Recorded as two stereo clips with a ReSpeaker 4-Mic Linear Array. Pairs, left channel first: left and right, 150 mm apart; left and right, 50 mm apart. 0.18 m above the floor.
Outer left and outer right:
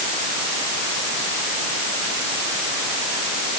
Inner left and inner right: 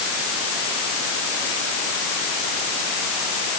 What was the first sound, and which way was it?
Only background noise.